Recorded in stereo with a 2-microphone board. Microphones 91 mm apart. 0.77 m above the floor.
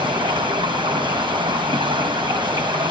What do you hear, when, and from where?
0.0 s running water: 65° right (ahead or behind), 5 m